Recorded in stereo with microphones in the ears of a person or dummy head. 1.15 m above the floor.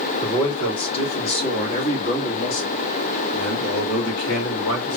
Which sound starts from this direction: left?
A man speaking, at 0.2 s.